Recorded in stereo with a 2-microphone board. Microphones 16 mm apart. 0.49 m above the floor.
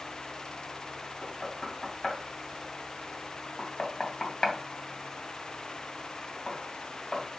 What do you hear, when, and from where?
1.2 s knocking: 35° left (ahead or behind), 2.5 m